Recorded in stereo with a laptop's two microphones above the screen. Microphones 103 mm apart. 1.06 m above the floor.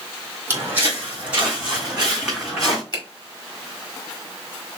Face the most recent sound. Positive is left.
turn(degrees=45)  # may be behind; listen again after turning